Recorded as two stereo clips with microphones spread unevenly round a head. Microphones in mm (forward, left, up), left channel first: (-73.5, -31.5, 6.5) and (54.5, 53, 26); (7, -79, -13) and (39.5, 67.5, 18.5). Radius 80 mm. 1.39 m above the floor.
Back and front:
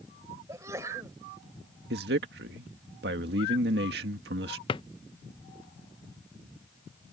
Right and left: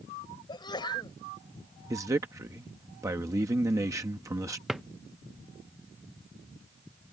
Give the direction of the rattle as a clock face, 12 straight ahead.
I don't hear a rattle.